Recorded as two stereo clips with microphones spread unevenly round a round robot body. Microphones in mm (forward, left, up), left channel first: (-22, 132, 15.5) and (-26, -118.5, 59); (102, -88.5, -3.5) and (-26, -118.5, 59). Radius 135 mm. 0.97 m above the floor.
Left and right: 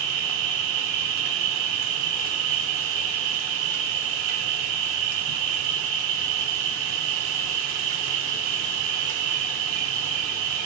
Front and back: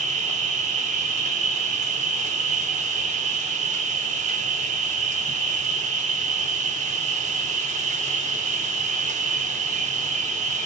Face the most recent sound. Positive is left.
turn(degrees=-120)